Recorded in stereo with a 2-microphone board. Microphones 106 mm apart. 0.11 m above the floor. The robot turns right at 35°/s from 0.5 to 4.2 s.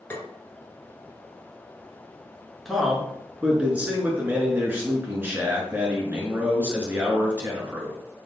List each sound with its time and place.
0.1 s tapping: 20° left (ahead or behind), 1.2 m
2.6 s a man speaking: centre (ahead or behind), 1.2 m; by 8.0 s 20° right (ahead or behind), 1.2 m